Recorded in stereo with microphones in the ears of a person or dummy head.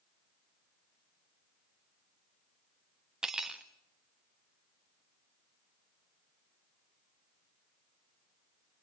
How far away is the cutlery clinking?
About 1.0 m.